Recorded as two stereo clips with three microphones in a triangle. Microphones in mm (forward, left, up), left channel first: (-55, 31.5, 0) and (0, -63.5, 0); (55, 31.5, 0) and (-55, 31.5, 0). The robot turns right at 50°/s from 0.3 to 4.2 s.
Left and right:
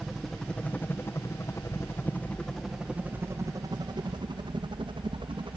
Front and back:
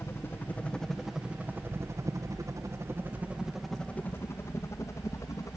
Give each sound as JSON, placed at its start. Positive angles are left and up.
{"t": 0.0, "sound": "a helicopter", "azimuth_deg": 25}